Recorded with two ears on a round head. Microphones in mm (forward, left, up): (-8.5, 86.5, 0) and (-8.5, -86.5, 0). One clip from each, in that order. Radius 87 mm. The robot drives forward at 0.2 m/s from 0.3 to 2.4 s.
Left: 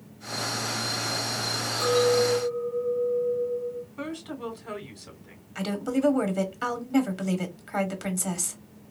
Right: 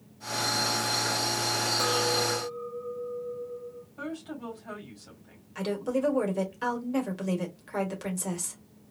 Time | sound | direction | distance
1.8 | a clink | 55° right (ahead or behind) | 1.5 m
4.0 | a woman speaking | 25° left (ahead or behind) | 2.5 m
5.5 | a woman speaking | 10° left (ahead or behind) | 1.4 m